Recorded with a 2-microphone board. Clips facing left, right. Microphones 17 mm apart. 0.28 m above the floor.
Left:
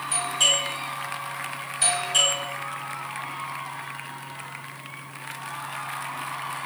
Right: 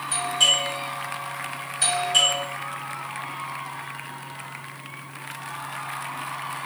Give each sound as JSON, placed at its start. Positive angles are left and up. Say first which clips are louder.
{"t": 0.1, "sound": "a doorbell", "louder": "right 2 dB", "side_deg": -10, "distance_m": 1.4}